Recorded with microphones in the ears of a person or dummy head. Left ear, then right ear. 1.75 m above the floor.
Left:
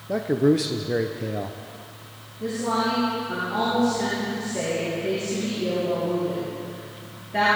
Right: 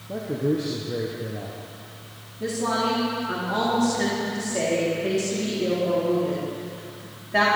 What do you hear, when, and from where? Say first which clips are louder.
0.1 s a man speaking: left 5 dB; 50° left (ahead or behind), 0.7 m
2.4 s a woman speaking: even; 45° right (ahead or behind), 3.5 m